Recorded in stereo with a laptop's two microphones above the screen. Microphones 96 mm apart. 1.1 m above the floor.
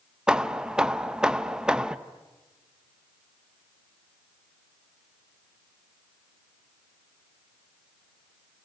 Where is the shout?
No shout in this recording.